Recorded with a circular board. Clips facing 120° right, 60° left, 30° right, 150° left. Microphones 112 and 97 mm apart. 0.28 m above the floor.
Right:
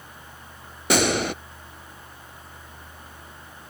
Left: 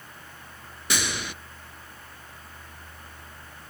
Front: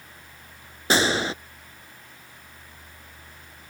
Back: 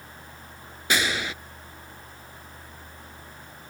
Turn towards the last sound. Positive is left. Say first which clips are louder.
# right 10 dB, front 5 dB
turn(degrees=-85)